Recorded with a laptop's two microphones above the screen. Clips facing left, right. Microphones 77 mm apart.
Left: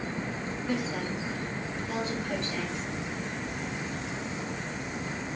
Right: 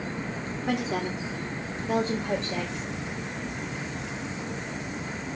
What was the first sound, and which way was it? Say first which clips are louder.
A woman speaking: right 4 dB; 70° right (ahead or behind).